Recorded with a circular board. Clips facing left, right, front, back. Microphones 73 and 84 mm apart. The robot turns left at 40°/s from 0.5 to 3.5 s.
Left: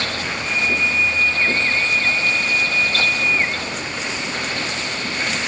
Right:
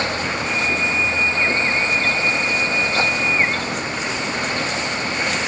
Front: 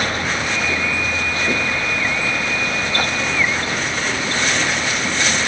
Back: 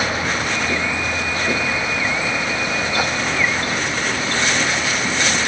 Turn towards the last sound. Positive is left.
No sound to turn to.